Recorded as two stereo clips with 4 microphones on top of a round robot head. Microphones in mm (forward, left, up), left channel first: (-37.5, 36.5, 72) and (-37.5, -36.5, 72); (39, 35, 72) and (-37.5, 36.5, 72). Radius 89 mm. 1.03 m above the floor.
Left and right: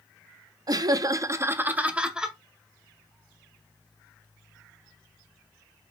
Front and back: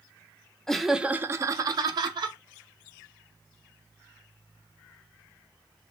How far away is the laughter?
About 0.6 m.